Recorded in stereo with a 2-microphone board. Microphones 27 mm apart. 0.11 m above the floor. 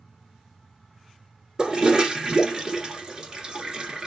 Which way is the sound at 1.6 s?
30° right (ahead or behind).